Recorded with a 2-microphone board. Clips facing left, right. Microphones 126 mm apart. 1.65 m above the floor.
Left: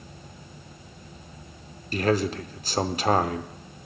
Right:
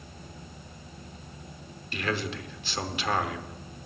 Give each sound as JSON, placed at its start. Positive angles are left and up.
{"t": 1.9, "sound": "a man speaking", "side_deg": 40, "distance_m": 0.7}